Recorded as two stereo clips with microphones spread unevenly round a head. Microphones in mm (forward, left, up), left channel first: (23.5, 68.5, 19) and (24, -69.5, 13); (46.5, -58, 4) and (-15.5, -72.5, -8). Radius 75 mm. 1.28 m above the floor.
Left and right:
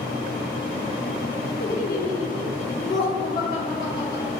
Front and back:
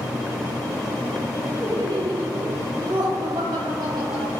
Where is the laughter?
120° left, 0.9 m; by 4.3 s 155° left, 3.5 m.